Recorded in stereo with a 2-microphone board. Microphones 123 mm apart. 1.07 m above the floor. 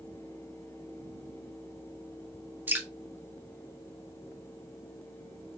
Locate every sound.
2.7 s dripping: 15° right (ahead or behind), 1.6 m